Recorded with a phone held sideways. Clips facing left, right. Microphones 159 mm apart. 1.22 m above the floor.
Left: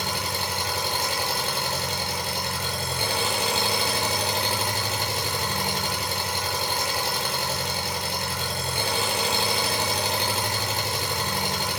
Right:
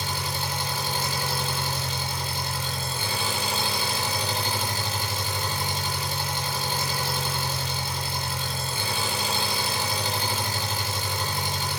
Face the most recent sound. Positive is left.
turn(degrees=70)  # may be behind; listen again after turning